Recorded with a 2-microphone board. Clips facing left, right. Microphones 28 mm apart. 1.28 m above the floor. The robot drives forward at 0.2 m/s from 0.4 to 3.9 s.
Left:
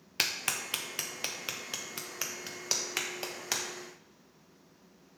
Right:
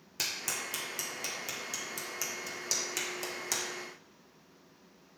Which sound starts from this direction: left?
A clap, at 0.2 s.